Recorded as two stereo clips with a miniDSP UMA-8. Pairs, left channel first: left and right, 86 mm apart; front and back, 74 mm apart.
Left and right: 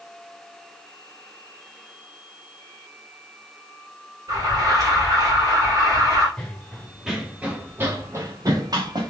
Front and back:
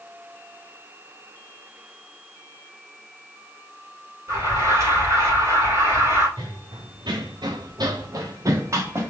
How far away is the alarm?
About 3 m.